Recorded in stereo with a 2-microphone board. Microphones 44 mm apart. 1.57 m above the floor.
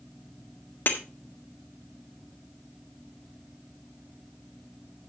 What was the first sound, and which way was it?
Breaking glass, 55° left (ahead or behind).